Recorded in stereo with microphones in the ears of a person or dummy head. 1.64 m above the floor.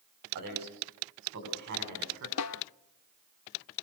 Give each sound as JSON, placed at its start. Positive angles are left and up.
{"t": 0.3, "sound": "a man speaking", "side_deg": -55, "distance_m": 4.5}
{"t": 2.4, "sound": "a snare drum", "side_deg": 85, "distance_m": 0.7}